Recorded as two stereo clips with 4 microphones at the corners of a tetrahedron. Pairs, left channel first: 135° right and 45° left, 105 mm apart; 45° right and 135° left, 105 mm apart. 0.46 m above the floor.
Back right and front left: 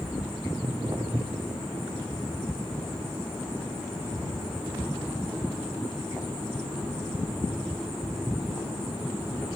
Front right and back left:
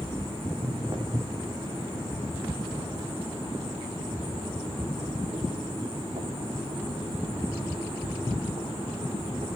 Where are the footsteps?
90° left, 6.5 m; by 9.5 s 145° left, 7.5 m.